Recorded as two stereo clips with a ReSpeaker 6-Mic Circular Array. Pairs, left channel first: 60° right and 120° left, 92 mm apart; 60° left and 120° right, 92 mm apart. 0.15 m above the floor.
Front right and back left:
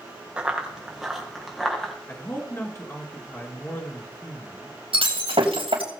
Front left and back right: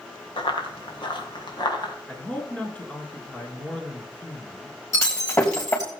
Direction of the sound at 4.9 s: 115° left.